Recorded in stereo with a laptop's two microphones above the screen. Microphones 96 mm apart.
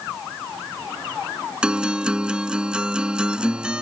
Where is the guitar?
10° right (ahead or behind).